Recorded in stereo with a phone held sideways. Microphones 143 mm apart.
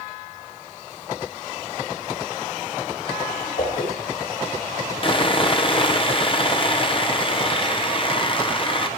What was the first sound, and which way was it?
A whoosh, 65° left (ahead or behind).